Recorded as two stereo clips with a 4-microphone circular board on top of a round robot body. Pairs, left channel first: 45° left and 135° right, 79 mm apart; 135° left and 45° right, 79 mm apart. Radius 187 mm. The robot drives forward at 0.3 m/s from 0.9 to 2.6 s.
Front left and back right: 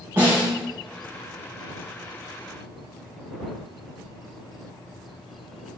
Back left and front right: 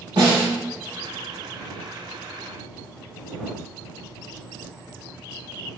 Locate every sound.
0.2 s a snare drum: 70° right, 0.6 m